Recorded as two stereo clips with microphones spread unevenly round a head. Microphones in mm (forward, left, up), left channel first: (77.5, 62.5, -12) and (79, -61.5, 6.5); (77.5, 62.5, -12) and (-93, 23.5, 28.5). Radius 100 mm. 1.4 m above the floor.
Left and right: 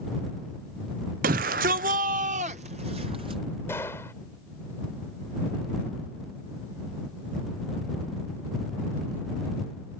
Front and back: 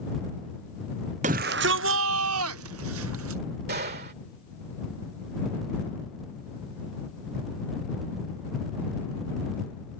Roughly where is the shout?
Right.